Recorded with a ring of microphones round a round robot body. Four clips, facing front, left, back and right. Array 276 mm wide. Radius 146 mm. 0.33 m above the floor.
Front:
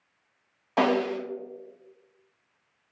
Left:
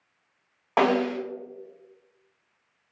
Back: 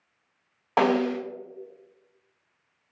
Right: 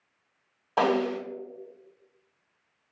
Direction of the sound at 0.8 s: 125° left.